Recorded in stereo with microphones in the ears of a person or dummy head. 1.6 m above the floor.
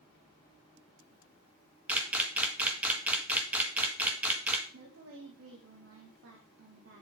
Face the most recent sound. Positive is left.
turn(degrees=-70)  # may be behind; listen again after turning